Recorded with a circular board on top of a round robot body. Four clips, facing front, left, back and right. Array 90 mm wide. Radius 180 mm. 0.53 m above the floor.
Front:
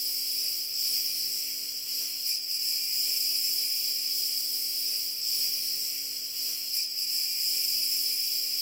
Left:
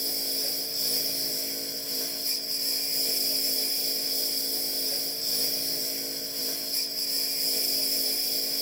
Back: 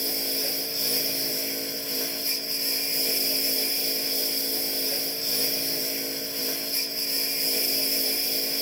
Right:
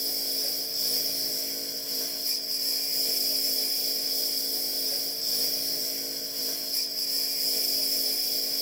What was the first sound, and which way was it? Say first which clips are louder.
A lawn mower: left 2 dB, back 17 dB; straight behind.